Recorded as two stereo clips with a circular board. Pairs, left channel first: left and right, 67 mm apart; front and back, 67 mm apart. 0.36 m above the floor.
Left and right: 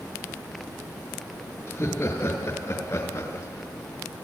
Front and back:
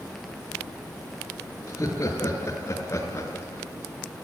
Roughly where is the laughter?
Ahead left.